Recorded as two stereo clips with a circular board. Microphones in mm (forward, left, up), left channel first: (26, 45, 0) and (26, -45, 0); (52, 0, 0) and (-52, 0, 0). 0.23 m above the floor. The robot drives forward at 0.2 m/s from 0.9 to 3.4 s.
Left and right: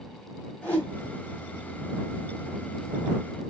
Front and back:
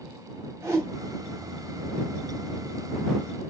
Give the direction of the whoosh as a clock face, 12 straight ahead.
7 o'clock.